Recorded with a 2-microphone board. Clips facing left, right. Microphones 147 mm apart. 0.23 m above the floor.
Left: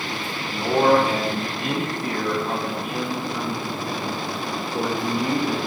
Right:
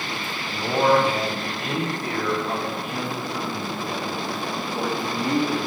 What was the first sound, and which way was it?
A man speaking, 40° left (ahead or behind).